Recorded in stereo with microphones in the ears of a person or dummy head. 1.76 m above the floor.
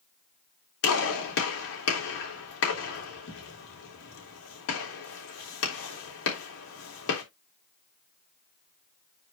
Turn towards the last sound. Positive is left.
turn(degrees=75)  # may be behind; listen again after turning